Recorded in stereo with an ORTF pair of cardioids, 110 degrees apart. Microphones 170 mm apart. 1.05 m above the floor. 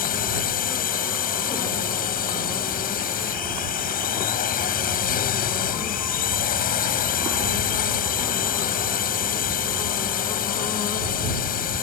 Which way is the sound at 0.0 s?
55° left.